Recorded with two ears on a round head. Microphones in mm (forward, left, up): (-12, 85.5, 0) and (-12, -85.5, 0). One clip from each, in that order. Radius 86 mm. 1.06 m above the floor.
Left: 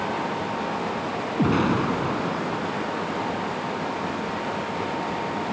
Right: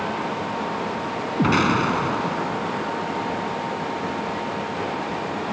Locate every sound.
1.4 s an explosion: 45° right (ahead or behind)